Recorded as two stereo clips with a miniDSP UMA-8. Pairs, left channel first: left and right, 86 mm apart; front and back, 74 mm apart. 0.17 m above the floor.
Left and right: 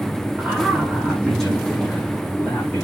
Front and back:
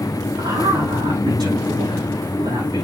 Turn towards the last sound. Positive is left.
turn(degrees=165)